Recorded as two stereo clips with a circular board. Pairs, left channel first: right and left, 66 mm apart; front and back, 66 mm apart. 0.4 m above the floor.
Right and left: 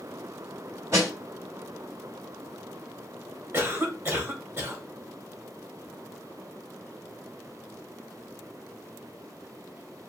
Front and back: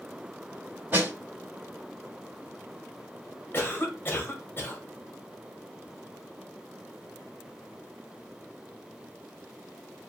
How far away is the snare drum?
About 2.5 m.